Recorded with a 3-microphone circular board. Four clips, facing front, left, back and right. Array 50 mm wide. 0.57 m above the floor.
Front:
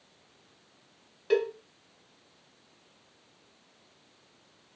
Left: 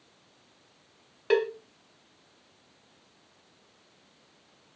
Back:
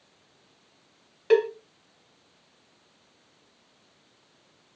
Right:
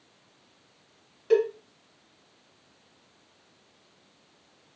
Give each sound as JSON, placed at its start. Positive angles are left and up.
{"t": 1.3, "sound": "a cowbell", "azimuth_deg": 125, "distance_m": 0.9}